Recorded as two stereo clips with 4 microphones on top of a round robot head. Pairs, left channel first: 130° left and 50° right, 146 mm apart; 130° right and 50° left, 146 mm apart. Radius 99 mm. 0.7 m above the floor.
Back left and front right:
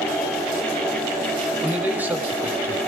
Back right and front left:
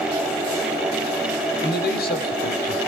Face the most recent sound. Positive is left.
turn(degrees=-120)